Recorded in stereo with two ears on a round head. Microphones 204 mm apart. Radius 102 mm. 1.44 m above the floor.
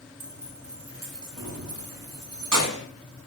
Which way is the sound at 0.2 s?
70° right (ahead or behind).